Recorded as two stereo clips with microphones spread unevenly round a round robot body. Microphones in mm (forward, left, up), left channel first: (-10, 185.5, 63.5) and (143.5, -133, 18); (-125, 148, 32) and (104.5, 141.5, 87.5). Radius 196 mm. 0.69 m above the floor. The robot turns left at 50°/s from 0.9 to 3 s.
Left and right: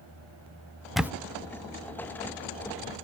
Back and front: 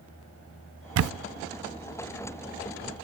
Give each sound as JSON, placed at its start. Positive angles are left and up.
{"t": 1.0, "sound": "a camera shutter", "azimuth_deg": 20, "distance_m": 0.6}